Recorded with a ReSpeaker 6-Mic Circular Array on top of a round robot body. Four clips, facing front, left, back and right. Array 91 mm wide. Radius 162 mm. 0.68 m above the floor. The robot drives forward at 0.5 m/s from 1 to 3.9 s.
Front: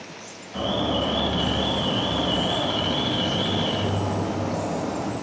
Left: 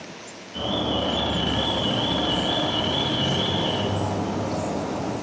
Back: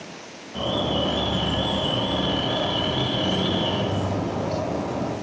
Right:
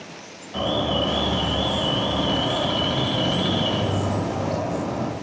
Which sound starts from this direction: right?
An alarm, at 0.5 s.